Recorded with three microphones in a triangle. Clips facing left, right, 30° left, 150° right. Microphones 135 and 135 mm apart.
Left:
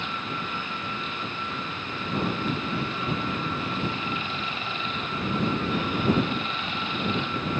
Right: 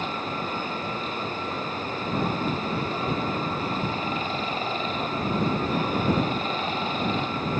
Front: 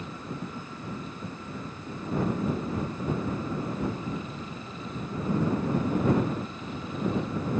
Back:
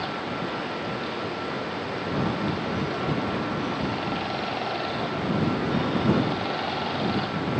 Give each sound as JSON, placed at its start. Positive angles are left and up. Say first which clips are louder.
{"t": 0.0, "sound": "running water", "louder": "right 4 dB, back 7 dB", "azimuth_deg": -140}